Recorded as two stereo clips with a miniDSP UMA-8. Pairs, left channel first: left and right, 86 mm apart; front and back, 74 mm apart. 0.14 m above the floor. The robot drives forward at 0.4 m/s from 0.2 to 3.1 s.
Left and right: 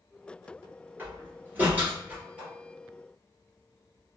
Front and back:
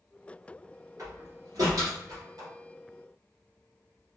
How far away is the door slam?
About 1.7 m.